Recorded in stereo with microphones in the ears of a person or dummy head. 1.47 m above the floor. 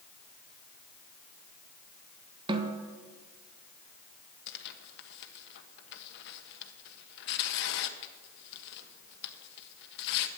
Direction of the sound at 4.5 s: 60° left (ahead or behind).